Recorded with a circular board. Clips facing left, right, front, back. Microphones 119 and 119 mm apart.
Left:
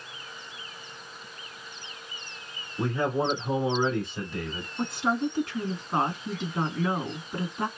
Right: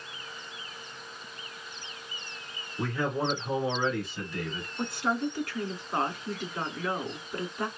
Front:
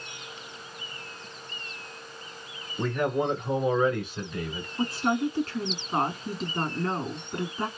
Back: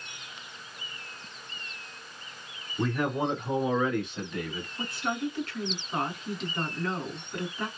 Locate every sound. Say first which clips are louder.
2.8 s a man speaking: left 3 dB, front 2 dB; 130° left, 1.7 m; by 4.7 s 60° left, 1.8 m
4.8 s a woman speaking: left 3 dB, front 6 dB; 40° left, 1.5 m